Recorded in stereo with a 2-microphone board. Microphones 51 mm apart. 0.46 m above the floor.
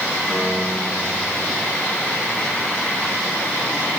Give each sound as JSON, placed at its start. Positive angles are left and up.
{"t": 0.3, "sound": "a piano", "side_deg": -15, "distance_m": 9.5}